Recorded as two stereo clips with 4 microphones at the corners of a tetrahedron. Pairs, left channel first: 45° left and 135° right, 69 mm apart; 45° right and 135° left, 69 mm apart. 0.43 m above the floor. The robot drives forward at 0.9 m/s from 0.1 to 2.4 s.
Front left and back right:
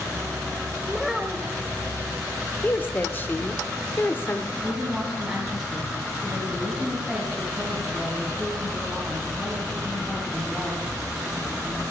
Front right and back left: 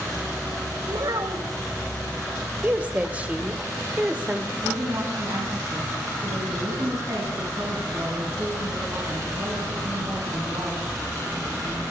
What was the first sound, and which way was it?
A child speaking, 130° left.